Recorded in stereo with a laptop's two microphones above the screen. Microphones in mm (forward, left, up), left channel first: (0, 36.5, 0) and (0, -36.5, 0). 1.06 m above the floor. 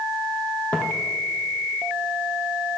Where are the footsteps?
20° left (ahead or behind), 1.9 m.